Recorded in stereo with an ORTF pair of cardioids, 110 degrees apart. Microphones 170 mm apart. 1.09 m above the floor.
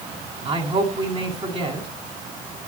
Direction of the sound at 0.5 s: 35° right.